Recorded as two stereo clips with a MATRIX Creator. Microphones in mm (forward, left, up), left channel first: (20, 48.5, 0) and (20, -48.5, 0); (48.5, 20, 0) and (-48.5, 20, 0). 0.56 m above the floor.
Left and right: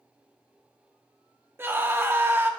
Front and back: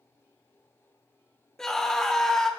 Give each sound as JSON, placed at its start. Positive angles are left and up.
{"t": 1.6, "sound": "a scream", "azimuth_deg": -75, "distance_m": 1.2}